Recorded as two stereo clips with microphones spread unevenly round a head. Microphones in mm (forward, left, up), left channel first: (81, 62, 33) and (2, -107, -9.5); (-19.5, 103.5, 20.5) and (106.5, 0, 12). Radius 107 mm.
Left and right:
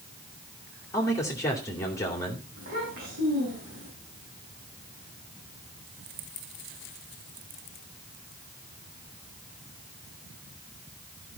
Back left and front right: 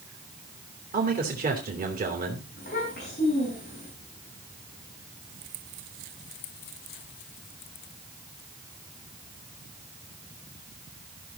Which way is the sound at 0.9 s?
10° right.